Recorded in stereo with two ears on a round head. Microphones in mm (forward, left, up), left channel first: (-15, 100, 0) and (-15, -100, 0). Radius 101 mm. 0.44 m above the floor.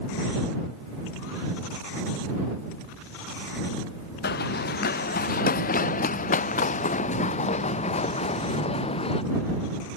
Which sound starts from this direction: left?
Running footsteps, at 4.2 s.